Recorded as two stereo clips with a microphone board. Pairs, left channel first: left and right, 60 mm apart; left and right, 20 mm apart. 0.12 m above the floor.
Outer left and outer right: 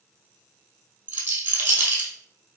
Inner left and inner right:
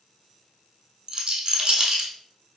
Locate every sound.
1.1 s a rattle: 30° right (ahead or behind), 0.9 m